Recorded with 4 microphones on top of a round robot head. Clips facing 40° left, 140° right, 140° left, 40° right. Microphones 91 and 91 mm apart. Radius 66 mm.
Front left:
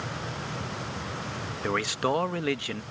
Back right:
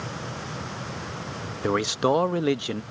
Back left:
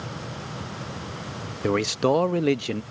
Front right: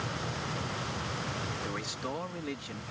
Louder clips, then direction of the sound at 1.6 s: Back right 5 dB, back left 15 dB; 155° left.